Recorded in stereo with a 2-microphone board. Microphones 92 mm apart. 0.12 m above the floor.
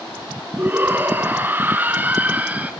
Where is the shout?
25° right (ahead or behind), 1.1 m; by 2.7 s 15° right (ahead or behind), 1.3 m.